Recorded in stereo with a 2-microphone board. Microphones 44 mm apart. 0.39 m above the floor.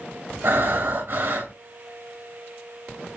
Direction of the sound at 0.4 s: 60° right (ahead or behind).